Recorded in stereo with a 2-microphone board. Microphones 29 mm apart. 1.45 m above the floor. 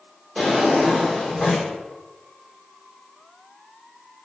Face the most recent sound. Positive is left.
turn(degrees=50)  # may be behind; listen again after turning